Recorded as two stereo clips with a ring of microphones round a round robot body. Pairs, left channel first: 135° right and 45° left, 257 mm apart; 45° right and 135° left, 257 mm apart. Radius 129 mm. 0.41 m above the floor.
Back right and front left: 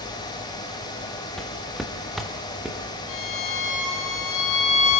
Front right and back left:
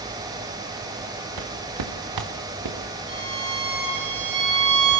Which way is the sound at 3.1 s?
175° right.